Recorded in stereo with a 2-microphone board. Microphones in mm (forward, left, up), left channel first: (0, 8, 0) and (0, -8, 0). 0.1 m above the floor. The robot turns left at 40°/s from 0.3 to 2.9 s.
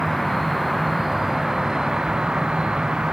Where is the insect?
15° left; by 3.1 s 90° right.